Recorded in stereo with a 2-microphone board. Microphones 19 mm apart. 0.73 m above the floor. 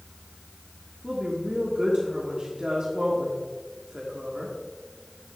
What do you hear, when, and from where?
1.0 s a woman speaking: 55° right (ahead or behind), 1.5 m